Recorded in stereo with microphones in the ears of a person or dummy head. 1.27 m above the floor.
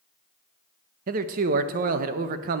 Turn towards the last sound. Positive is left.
turn(degrees=-45)  # may be behind; listen again after turning